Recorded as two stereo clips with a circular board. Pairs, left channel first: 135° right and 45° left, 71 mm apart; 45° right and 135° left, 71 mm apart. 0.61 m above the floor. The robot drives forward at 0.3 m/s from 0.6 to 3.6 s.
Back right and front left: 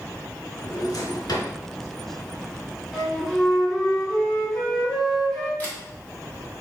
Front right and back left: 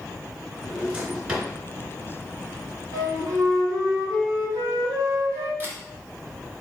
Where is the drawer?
155° right, 1.5 m.